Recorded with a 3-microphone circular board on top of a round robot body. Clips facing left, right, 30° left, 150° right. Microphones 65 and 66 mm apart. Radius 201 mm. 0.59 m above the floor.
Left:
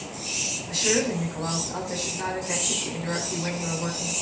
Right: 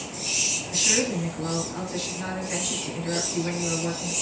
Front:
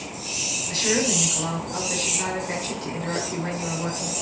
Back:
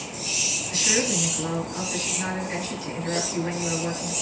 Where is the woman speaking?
75° left, 7.5 m.